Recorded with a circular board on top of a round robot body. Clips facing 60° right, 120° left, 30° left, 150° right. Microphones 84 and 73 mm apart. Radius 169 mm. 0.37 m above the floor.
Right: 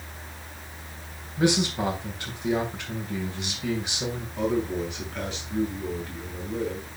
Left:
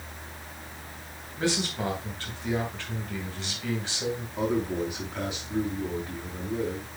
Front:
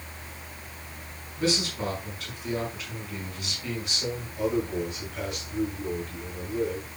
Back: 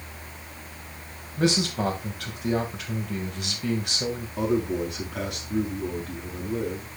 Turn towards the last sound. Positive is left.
turn(degrees=-160)